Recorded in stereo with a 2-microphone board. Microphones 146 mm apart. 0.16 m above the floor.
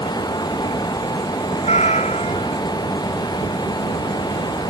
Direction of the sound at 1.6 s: 50° left (ahead or behind).